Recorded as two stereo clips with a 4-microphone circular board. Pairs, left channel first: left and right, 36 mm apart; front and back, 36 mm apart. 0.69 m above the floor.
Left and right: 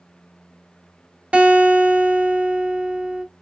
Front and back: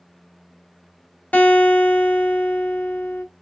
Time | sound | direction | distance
1.3 | a guitar | 35° right | 1.0 m